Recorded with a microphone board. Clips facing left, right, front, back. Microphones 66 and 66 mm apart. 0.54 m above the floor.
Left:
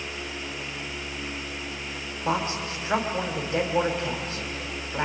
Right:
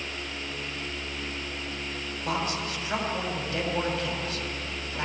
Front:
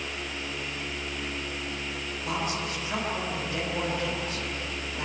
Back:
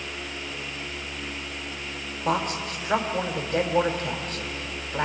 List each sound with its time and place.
2.2 s a woman speaking: 145° left, 3 m